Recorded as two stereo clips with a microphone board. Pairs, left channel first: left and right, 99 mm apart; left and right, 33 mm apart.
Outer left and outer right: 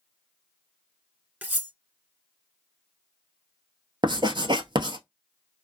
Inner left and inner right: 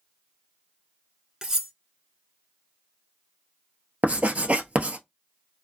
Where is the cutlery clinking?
20° right (ahead or behind), 0.9 m.